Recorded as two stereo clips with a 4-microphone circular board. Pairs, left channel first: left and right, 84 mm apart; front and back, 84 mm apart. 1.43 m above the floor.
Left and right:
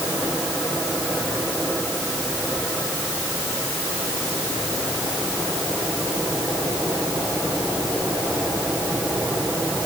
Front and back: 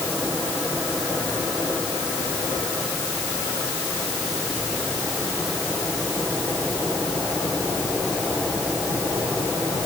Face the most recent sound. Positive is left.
No sound to turn to.